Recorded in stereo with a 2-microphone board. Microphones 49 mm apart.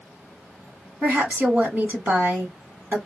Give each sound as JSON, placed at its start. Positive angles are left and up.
{"t": 1.0, "sound": "a woman speaking", "side_deg": -35, "distance_m": 1.5}